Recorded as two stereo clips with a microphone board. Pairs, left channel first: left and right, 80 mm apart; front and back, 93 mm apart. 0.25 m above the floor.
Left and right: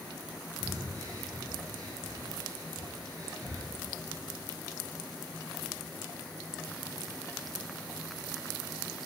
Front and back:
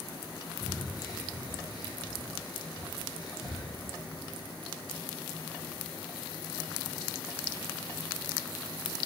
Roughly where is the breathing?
Ahead right.